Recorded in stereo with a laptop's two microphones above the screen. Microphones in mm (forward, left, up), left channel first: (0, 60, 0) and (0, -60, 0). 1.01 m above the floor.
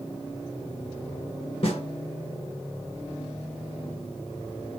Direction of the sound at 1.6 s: 55° left (ahead or behind).